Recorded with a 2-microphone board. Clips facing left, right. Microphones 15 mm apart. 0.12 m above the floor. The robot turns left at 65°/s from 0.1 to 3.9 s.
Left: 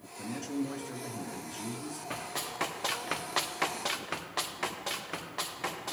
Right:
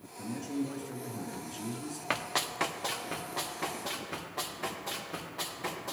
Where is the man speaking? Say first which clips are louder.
Even; 25° left (ahead or behind), 1.4 m; by 2.0 s 20° right (ahead or behind), 1.4 m.